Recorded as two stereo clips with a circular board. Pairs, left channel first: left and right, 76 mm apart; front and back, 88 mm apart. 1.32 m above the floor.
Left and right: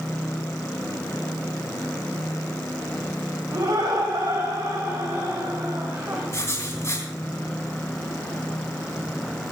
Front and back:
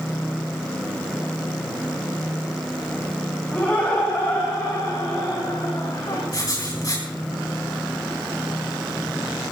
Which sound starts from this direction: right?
Laughter, at 3.5 s.